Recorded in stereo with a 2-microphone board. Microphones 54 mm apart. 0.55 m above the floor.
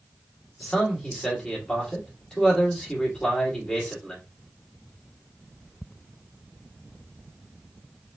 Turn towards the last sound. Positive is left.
turn(degrees=10)  # may be behind; listen again after turning